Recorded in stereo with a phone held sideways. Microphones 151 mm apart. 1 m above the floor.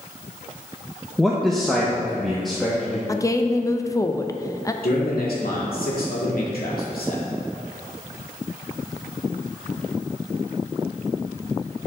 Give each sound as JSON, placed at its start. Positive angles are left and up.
{"t": 1.2, "sound": "a man speaking", "side_deg": 0, "distance_m": 0.7}
{"t": 3.1, "sound": "a woman speaking", "side_deg": 20, "distance_m": 0.5}
{"t": 4.8, "sound": "a man speaking", "side_deg": 80, "distance_m": 2.0}